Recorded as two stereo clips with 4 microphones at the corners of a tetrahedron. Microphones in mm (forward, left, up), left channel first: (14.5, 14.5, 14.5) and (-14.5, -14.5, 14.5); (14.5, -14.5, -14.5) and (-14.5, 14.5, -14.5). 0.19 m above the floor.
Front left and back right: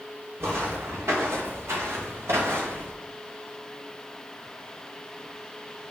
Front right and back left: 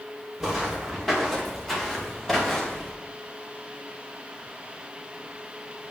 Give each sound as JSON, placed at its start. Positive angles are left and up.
{"t": 0.4, "sound": "footsteps", "azimuth_deg": -145, "distance_m": 3.5}